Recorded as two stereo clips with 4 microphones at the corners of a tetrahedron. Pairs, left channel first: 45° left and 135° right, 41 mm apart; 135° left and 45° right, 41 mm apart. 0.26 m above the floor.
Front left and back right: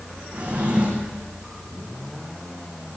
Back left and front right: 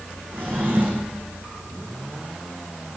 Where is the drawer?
75° right, 7 m.